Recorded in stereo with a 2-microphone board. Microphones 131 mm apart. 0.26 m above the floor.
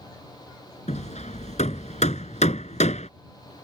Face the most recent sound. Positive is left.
turn(degrees=65)  # may be behind; listen again after turning